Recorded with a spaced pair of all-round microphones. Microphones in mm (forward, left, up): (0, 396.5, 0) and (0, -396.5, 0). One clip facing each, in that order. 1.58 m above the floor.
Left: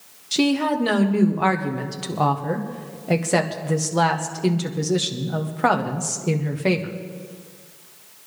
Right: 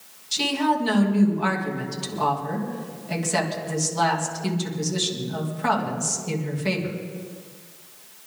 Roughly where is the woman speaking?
Left.